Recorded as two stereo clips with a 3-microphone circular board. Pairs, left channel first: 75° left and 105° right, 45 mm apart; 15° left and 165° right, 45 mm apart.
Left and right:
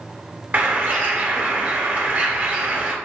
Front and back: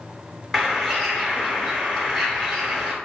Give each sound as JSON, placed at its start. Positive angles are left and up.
{"t": 0.5, "sound": "a bird", "azimuth_deg": -65, "distance_m": 1.7}